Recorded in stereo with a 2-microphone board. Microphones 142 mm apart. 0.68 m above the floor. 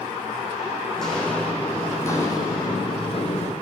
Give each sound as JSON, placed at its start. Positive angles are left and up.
{"t": 1.0, "sound": "footsteps", "side_deg": 0, "distance_m": 2.5}